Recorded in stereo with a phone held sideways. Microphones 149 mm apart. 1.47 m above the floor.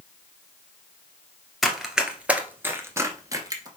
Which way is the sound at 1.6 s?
Centre (ahead or behind).